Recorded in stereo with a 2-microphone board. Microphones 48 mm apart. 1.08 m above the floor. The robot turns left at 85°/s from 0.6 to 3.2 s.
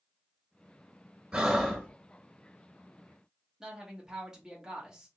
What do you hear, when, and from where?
1.3 s breathing: 160° right, 1.2 m; by 1.9 s 155° left, 1.2 m
3.6 s a woman speaking: 15° right (ahead or behind), 1.6 m